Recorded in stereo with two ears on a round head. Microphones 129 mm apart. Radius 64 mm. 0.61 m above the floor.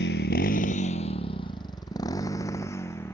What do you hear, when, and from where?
0.0 s a motorcycle: 85° left; by 3.1 s 15° left (ahead or behind)